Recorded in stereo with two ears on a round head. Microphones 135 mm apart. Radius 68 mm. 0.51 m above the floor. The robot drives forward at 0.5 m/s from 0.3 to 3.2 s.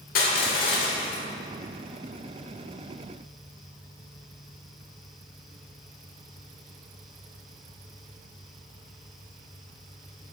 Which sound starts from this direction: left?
Crushing, at 0.1 s.